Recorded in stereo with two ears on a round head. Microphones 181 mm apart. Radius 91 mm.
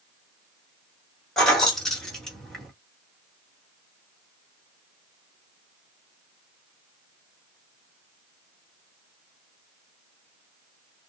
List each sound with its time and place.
1.4 s keys jangling: 5° left (ahead or behind), 1.2 m